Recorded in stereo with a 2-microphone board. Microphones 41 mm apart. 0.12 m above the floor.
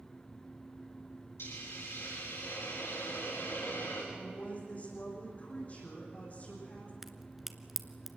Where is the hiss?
80° left, 10 m.